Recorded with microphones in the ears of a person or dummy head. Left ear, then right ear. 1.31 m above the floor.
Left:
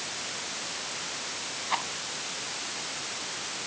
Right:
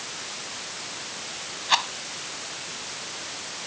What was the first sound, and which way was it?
A rattle, 85° right.